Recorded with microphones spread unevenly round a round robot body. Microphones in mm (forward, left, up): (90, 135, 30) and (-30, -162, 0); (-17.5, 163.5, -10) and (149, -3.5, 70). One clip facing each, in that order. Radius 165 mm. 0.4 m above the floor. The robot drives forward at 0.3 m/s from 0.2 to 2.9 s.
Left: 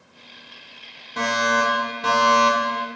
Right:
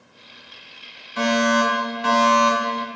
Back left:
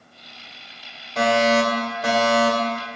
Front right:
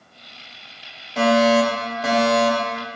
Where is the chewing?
I don't hear chewing.